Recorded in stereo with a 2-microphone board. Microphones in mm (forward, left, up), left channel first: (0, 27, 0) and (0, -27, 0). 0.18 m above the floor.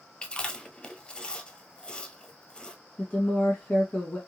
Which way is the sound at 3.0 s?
25° left (ahead or behind).